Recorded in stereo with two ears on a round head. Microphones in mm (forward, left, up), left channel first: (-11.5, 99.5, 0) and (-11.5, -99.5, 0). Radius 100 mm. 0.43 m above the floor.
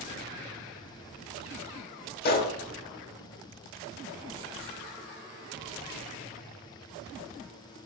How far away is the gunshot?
About 0.8 m.